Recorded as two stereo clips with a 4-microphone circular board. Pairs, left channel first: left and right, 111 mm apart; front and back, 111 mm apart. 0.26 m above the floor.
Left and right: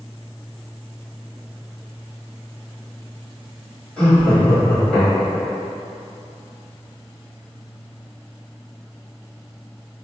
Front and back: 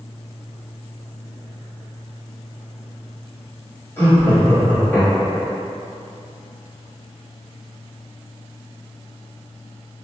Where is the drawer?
No drawer in this recording.